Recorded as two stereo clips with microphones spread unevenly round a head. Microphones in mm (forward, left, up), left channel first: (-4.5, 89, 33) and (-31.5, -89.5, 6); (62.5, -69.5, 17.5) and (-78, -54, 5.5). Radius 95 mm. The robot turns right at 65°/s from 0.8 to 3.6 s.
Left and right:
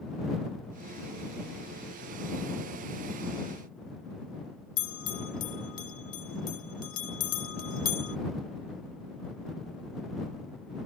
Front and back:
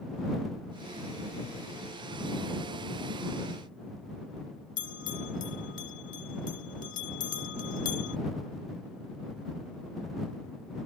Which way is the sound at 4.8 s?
40° left.